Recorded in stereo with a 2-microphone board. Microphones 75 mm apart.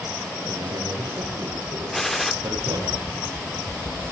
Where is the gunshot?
5° left (ahead or behind), 1.4 m.